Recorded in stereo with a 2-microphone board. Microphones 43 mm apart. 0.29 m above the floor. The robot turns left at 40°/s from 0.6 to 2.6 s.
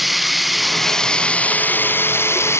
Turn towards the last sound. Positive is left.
turn(degrees=105)